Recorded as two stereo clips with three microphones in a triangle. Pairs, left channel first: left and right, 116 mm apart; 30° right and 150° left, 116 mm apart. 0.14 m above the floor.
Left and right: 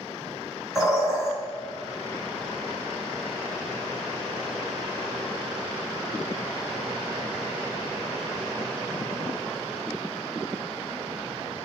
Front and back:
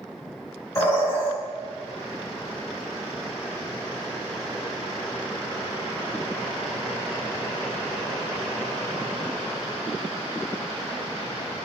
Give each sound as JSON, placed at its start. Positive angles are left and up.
{"t": 0.8, "sound": "a bird", "azimuth_deg": -5, "distance_m": 1.9}